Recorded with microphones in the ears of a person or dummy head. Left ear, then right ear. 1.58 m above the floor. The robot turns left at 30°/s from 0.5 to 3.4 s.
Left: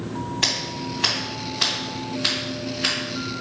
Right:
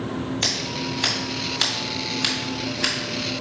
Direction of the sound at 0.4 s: 10° right (ahead or behind).